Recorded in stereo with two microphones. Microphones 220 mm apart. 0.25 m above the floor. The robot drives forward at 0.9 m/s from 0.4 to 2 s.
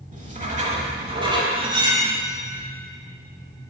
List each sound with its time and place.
0.1 s writing: 35° right (ahead or behind), 0.8 m; by 1.4 s 20° right (ahead or behind), 1.4 m
1.6 s cutlery clinking: 25° right (ahead or behind), 0.6 m; by 2.2 s 15° right (ahead or behind), 0.9 m